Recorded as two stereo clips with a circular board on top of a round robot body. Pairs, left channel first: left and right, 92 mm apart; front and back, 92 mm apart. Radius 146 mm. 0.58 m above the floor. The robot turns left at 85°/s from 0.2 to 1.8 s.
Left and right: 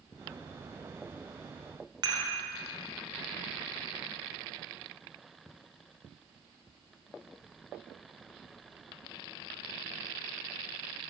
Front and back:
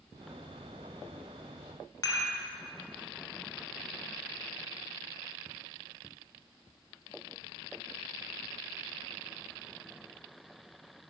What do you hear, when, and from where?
2.0 s dishes clattering: 45° right, 1.9 m